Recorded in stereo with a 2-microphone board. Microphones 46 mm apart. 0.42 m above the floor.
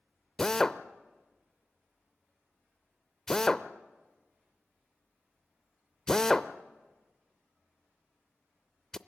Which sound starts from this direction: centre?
A drill, at 0.4 s.